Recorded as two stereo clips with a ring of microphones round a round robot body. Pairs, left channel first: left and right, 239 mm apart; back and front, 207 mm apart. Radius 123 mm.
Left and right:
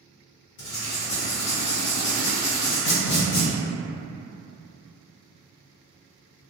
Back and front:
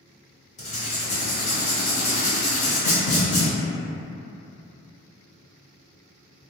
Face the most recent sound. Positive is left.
turn(degrees=130)